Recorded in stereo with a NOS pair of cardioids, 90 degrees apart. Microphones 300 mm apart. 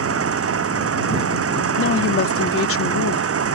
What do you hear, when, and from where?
0.0 s an engine running: 50° right
1.8 s a woman speaking: 45° left